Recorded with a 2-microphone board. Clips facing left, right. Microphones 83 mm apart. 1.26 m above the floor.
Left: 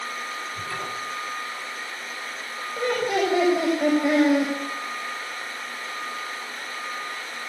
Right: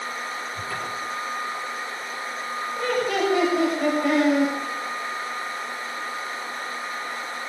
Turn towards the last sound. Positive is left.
turn(degrees=15)  # may be behind; listen again after turning